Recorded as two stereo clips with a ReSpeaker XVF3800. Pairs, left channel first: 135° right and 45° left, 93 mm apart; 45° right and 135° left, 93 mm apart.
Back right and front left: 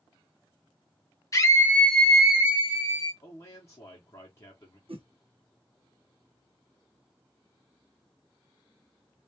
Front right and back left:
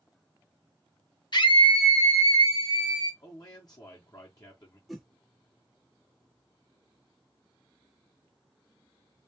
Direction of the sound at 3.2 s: 85° right.